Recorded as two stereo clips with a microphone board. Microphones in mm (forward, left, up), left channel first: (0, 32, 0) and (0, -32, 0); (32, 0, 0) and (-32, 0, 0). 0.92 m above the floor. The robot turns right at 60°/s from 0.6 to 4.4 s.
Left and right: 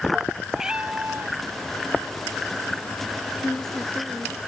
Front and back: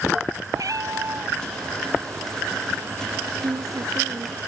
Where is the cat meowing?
170° right; by 1.4 s 125° right.